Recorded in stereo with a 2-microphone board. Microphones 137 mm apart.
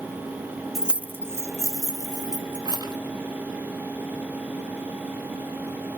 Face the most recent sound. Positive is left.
turn(degrees=-30)  # may be behind; listen again after turning